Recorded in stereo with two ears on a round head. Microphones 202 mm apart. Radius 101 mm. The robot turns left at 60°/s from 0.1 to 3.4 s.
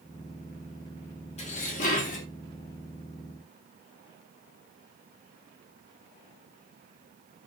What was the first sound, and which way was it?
Dishes clattering, 125° left.